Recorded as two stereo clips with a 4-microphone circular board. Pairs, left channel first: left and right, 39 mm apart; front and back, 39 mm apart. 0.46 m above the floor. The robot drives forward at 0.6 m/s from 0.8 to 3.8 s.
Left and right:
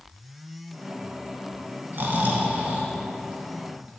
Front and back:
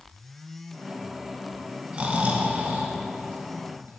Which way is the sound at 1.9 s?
125° right.